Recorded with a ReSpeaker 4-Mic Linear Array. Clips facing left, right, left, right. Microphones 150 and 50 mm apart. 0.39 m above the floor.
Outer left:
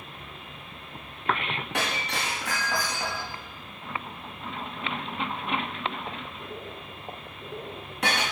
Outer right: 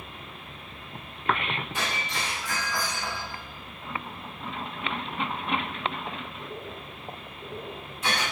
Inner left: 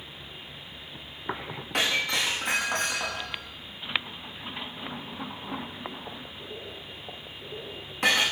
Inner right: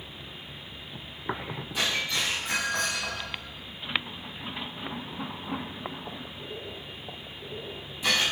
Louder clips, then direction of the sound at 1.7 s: Outer left 2 dB, inner left 3 dB; 70° left (ahead or behind).